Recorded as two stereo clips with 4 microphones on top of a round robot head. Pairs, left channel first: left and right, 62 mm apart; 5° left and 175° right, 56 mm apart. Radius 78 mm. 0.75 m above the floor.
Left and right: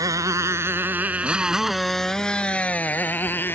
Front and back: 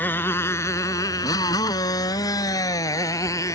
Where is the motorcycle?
55° right; by 3.5 s 35° left.